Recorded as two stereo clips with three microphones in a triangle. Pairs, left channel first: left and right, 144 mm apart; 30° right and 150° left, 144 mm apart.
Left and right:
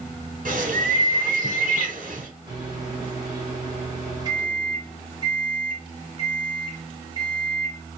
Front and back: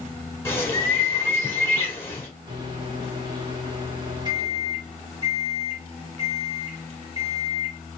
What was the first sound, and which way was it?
A bird, 100° right.